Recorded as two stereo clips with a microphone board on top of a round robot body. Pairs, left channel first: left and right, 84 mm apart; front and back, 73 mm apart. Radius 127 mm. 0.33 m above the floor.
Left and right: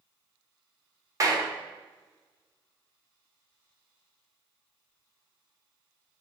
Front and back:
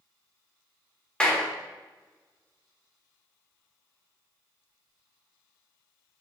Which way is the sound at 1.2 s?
70° right.